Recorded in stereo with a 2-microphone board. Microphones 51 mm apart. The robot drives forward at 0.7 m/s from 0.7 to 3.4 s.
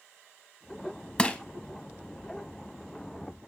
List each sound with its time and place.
1.2 s crushing: 20° left (ahead or behind), 0.6 m; by 1.4 s 25° left (ahead or behind), 0.6 m